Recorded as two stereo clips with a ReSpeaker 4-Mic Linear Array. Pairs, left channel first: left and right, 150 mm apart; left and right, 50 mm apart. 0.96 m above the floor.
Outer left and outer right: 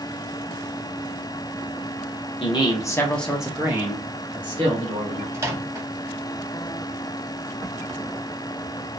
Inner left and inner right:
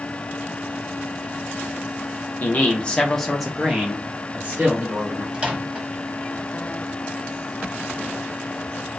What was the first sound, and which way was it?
A man speaking, 35° left (ahead or behind).